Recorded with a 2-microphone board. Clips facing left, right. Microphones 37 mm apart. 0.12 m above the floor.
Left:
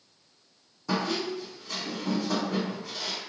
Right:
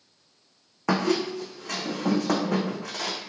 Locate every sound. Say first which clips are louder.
0.9 s a squeak: right 5 dB; 70° right (ahead or behind), 0.6 m